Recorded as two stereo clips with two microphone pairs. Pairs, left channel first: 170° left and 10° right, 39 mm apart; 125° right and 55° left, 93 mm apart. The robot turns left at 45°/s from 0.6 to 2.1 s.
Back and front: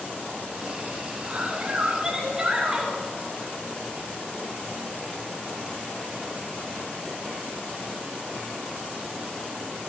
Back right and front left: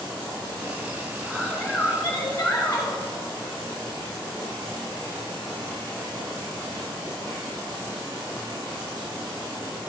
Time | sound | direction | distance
1.2 | a woman speaking | 30° right | 2.5 m